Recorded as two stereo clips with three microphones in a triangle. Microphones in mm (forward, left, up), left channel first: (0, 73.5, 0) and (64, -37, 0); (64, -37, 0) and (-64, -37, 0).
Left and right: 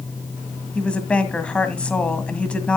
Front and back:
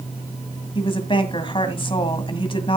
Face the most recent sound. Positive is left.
turn(degrees=40)